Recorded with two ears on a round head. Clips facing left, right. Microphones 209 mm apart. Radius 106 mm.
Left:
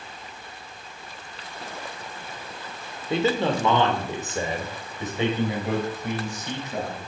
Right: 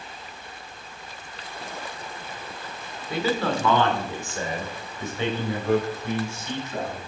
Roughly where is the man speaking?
Left.